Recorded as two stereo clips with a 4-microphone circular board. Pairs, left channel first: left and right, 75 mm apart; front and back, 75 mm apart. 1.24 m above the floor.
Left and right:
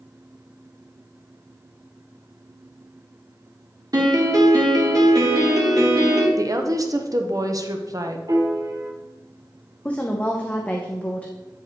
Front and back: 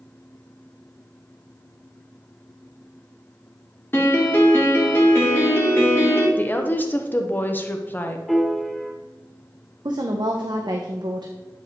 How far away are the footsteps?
No footsteps in this recording.